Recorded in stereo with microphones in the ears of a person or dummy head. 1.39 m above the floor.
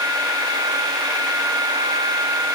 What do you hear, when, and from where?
Only background noise.